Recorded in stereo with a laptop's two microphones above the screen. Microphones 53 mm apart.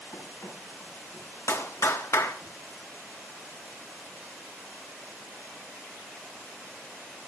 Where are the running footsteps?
75° left (ahead or behind), 4.5 m; by 2.5 s 55° left (ahead or behind), 5.5 m.